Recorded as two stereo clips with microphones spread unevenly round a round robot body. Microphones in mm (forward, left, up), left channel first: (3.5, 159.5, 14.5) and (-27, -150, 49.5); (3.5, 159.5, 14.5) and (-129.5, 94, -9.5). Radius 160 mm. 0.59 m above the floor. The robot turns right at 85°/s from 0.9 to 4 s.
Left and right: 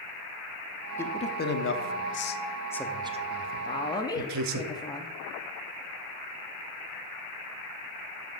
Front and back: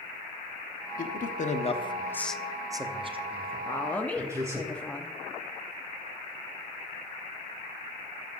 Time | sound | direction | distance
1.0 | a man speaking | 10° left | 0.9 m
3.6 | a woman speaking | 90° left | 0.7 m